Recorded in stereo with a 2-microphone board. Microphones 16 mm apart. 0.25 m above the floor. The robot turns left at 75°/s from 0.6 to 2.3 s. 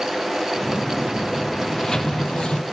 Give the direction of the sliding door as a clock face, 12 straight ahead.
7 o'clock.